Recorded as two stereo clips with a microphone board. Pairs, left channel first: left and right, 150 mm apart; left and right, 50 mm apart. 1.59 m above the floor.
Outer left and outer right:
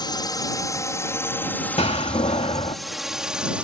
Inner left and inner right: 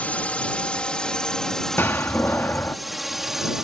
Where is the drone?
30° left (ahead or behind); by 3.6 s 10° right (ahead or behind).